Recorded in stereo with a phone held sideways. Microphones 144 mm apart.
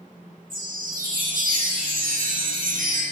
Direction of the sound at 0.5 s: 75° right (ahead or behind).